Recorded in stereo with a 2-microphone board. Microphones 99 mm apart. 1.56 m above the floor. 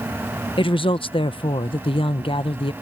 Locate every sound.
0.6 s a woman speaking: 60° left (ahead or behind)